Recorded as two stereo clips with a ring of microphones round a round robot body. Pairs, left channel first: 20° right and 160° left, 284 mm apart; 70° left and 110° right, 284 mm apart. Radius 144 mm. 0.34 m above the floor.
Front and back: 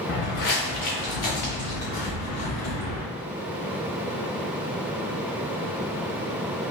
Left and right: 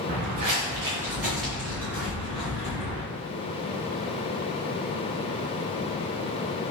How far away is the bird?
I don't hear a bird.